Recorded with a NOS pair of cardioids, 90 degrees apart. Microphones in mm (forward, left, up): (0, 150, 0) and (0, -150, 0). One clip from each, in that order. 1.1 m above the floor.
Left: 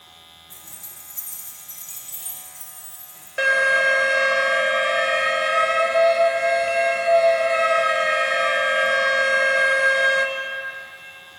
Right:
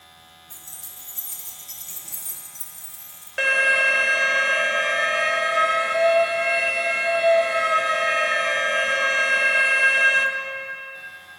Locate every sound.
0.5 s keys jangling: 40° right, 3 m; by 3.3 s 55° right, 5 m
3.4 s an alarm: 10° right, 1.3 m